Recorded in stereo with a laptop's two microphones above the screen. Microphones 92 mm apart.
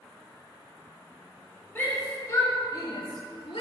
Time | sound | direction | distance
1.8 | a shout | 20° left (ahead or behind) | 3 m